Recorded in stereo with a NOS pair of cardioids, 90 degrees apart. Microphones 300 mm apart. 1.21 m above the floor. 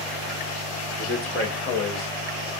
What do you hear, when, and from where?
1.0 s a man speaking: 40° left, 1.2 m; by 2.5 s 70° left, 1.8 m